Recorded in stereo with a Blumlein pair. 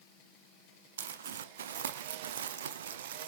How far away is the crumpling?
About 0.6 m.